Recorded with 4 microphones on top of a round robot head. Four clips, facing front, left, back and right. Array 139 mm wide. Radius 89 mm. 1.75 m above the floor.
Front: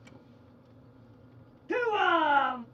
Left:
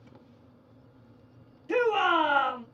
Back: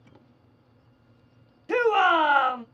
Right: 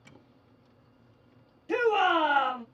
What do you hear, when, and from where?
1.7 s a shout: 175° right, 0.9 m